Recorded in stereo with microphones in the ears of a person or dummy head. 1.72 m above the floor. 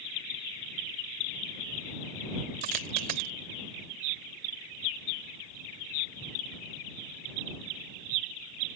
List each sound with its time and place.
2.6 s a dropped coin: 45° right (ahead or behind)